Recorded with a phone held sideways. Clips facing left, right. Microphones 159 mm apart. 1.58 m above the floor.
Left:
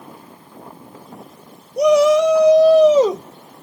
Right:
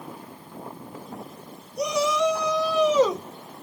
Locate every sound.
1.8 s a shout: 65° left (ahead or behind), 0.8 m; by 3.6 s 5° left (ahead or behind), 0.8 m